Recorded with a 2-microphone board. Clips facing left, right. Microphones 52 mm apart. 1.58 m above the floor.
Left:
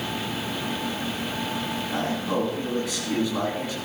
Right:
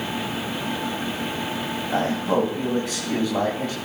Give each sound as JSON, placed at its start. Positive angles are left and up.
{"t": 1.9, "sound": "a man speaking", "side_deg": -60, "distance_m": 2.0}